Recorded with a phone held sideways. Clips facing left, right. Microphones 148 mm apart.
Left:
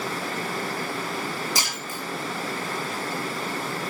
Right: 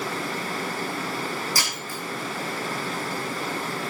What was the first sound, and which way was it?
Breaking glass, 20° left (ahead or behind).